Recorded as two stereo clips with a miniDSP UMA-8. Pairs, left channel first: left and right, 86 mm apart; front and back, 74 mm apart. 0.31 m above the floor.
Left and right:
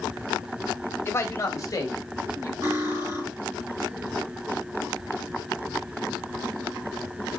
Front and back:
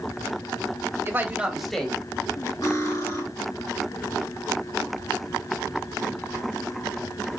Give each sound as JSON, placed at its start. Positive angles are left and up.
{"t": 1.1, "sound": "a man speaking", "azimuth_deg": 140, "distance_m": 1.3}
{"t": 2.6, "sound": "cutlery clinking", "azimuth_deg": -35, "distance_m": 3.0}